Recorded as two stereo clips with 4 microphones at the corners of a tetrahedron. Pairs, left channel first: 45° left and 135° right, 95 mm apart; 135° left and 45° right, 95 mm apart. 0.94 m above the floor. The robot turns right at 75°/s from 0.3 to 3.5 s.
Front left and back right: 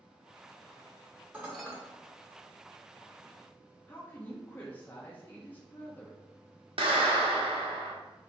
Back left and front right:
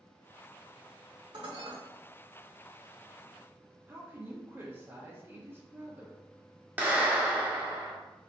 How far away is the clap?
About 1.2 m.